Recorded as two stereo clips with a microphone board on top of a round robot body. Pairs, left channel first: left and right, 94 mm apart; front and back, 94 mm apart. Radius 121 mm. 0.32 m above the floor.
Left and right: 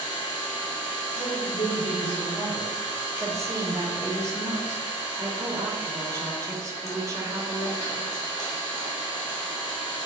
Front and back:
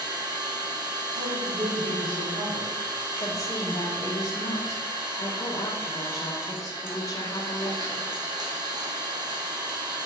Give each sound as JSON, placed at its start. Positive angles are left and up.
{"t": 0.0, "sound": "an engine running", "azimuth_deg": 140, "distance_m": 2.5}
{"t": 1.1, "sound": "a woman speaking", "azimuth_deg": 165, "distance_m": 3.5}
{"t": 3.2, "sound": "a woman speaking", "azimuth_deg": -45, "distance_m": 2.0}